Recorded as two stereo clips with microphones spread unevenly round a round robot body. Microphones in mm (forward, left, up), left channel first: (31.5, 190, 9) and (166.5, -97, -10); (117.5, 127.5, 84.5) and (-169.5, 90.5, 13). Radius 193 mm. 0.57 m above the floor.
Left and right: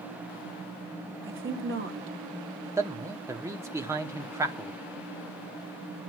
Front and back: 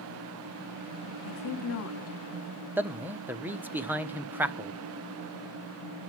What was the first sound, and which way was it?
A woman speaking, 35° right.